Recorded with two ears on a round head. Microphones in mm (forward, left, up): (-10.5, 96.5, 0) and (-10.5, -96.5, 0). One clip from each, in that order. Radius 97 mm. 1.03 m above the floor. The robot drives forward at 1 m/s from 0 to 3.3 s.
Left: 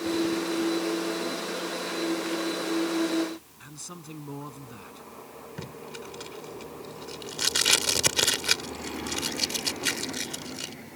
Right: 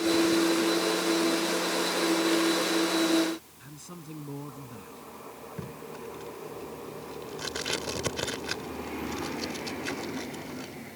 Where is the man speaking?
40° left (ahead or behind).